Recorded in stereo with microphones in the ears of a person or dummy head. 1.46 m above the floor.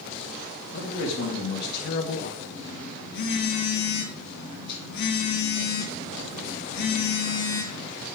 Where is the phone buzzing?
60° left (ahead or behind), 3 m.